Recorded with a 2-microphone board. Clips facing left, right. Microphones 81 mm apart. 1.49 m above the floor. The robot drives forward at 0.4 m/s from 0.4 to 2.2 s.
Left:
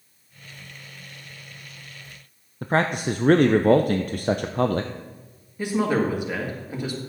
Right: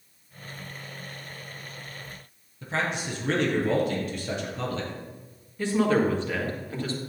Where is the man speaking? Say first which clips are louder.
Left 7 dB; 50° left (ahead or behind), 0.5 m.